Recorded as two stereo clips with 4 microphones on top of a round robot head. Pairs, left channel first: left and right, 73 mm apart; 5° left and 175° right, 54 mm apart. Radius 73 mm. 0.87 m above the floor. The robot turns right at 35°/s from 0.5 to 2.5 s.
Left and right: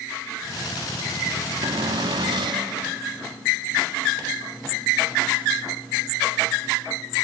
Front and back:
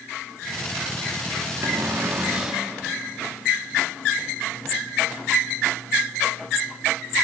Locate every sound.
1.6 s a cupboard door: 130° right, 1.4 m; by 2.7 s 100° right, 1.4 m